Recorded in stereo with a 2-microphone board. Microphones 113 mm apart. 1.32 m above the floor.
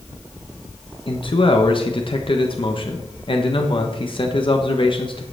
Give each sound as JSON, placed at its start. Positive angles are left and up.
{"t": 1.1, "sound": "a man speaking", "side_deg": 50, "distance_m": 1.2}